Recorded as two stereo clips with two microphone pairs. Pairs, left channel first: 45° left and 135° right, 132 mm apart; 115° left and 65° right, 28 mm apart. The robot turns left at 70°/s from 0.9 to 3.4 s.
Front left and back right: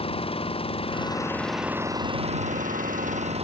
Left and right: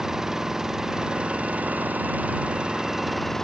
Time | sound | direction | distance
0.0 | an engine running | 5° left | ?